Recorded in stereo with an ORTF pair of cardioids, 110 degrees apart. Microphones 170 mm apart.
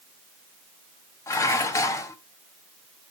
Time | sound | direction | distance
1.3 | dishes clattering | 20° left | 1.2 m